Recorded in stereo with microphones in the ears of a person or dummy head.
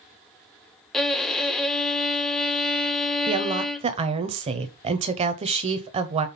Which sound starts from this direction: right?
A woman speaking, at 3.3 s.